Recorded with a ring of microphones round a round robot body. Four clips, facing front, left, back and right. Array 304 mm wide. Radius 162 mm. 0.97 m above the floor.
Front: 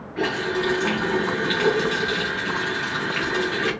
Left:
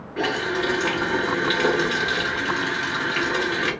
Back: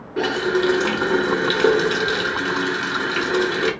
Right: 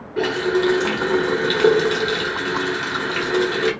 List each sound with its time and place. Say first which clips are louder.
0.2 s a running tap: right 5 dB, back 4 dB; 150° right, 1.4 m